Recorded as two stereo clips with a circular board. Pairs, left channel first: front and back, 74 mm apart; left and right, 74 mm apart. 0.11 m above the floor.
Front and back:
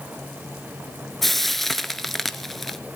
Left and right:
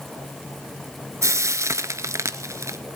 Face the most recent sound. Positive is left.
turn(degrees=-85)